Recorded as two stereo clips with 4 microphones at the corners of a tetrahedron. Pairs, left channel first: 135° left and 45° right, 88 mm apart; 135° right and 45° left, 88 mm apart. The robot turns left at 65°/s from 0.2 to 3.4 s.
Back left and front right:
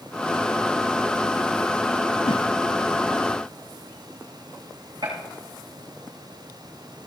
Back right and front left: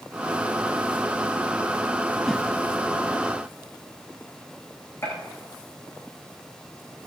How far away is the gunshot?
About 6 m.